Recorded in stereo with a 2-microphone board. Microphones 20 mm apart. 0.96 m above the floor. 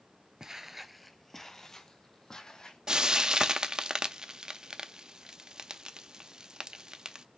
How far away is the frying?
About 0.5 m.